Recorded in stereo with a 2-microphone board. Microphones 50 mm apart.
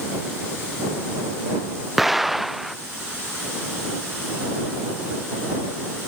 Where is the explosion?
Centre (ahead or behind).